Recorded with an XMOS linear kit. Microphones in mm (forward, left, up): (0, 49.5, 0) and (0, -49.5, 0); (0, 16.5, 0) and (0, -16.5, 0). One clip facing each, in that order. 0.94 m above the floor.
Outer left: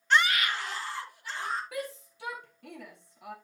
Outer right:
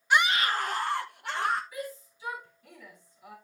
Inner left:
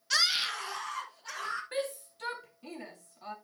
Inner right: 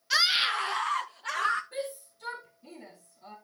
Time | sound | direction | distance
0.1 | a scream | 10° right (ahead or behind) | 1.1 m
1.7 | a shout | 70° left (ahead or behind) | 2 m